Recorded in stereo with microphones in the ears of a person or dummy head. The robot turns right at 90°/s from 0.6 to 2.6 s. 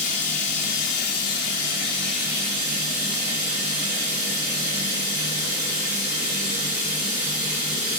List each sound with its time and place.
0.0 s running water: 45° left, 0.9 m; by 8.0 s 135° right, 0.9 m